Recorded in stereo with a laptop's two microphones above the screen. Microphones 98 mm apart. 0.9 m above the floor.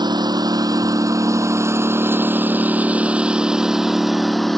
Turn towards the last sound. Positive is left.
turn(degrees=0)  # may be behind; listen again after turning